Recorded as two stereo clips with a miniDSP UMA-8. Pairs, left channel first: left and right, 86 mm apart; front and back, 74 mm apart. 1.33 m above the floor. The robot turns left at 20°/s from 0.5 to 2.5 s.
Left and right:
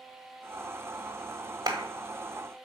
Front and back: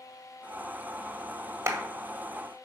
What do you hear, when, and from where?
1.7 s a clap: 130° right, 1.5 m; by 1.8 s 135° right, 1.5 m